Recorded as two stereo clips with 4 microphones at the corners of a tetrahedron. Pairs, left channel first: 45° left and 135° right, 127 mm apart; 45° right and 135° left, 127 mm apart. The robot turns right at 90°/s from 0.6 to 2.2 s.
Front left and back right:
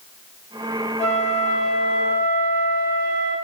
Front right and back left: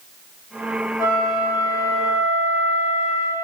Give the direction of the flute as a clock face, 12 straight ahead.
11 o'clock.